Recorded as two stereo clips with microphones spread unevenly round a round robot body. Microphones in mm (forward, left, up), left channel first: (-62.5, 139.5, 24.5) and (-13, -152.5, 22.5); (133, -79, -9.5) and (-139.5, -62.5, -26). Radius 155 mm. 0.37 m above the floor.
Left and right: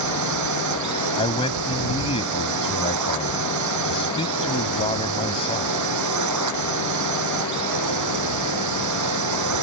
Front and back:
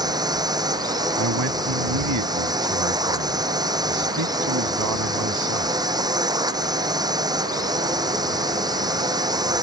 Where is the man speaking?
170° left.